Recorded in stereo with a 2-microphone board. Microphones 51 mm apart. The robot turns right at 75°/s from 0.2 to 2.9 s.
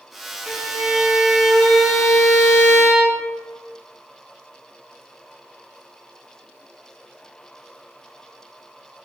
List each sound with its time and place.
0.5 s a violin: 100° right, 0.8 m; by 3.2 s 85° left, 0.8 m